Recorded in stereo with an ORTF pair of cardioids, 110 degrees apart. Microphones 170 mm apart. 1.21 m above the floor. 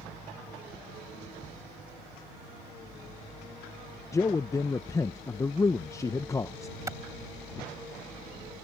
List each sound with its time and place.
4.1 s a man speaking: 20° left
6.9 s a clap: 15° right